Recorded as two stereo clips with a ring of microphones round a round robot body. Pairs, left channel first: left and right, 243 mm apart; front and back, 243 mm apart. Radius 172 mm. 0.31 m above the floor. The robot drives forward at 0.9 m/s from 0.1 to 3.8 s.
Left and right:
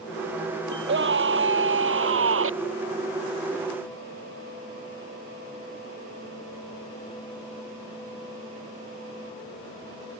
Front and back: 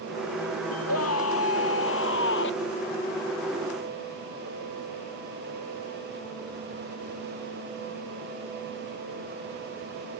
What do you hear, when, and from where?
0.7 s a scream: 50° right; by 2.5 s 60° right